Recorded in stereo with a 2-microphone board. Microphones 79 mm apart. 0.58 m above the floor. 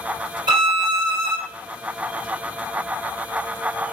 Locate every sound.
0.5 s a violin: 75° right (ahead or behind), 1.5 m